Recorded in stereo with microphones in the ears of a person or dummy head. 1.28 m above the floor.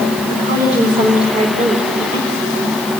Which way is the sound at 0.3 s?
35° right (ahead or behind).